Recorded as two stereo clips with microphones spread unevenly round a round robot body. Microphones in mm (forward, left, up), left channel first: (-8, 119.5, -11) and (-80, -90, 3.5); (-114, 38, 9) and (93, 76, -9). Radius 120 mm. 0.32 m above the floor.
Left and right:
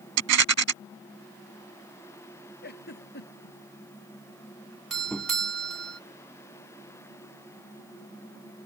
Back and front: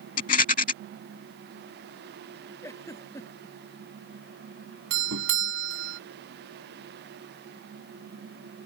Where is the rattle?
110° right.